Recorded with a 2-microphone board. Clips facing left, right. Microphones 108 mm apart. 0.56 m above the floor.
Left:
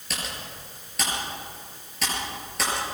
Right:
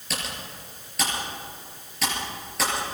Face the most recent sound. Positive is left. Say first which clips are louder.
# right 1 dB
turn(degrees=0)  # may be behind; listen again after turning